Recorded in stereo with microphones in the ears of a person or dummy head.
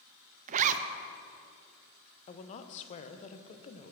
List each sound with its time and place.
0.5 s a zipper: 40° right (ahead or behind), 0.6 m
2.3 s a woman speaking: 40° left (ahead or behind), 0.8 m